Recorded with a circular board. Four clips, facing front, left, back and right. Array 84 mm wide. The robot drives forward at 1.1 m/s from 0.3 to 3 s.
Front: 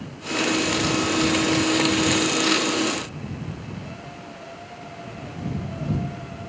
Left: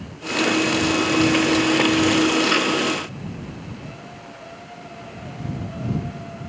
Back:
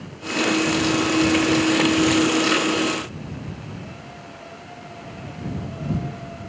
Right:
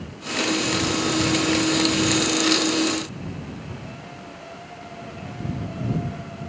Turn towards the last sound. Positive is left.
No sound to turn to.